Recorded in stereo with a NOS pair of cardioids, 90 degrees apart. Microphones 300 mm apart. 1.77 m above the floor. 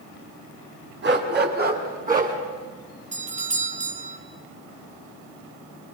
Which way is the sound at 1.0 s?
35° right.